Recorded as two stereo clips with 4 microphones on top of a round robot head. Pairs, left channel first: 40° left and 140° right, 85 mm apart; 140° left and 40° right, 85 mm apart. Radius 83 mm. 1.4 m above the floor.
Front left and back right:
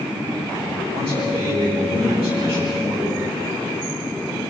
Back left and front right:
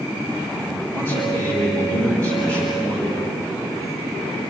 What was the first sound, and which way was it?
A man speaking, 150° right.